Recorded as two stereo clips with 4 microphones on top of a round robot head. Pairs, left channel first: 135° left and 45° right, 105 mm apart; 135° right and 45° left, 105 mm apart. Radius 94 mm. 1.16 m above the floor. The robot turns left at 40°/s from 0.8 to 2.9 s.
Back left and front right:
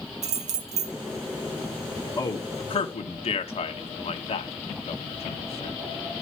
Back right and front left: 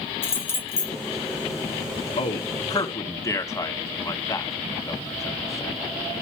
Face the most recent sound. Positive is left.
turn(degrees=165)